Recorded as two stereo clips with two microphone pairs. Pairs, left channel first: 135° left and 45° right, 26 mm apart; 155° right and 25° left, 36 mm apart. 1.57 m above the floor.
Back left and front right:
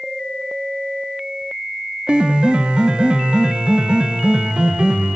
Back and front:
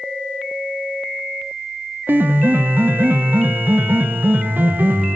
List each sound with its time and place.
2.1 s a piano: straight ahead, 0.5 m